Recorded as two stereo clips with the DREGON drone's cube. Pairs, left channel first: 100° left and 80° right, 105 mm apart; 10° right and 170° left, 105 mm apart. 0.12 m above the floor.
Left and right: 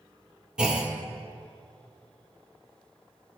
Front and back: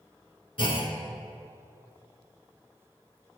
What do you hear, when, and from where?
0.6 s a clunk: straight ahead, 1.0 m